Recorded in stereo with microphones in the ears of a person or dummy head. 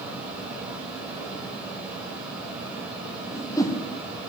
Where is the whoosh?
20° left (ahead or behind), 1.3 m.